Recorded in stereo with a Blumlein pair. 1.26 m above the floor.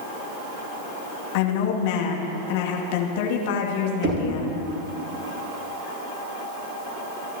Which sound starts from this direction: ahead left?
A woman speaking, at 1.3 s.